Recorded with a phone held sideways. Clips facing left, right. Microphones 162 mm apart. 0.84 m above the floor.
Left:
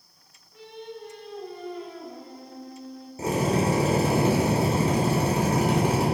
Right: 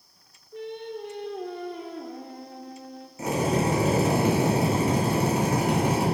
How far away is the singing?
About 0.9 m.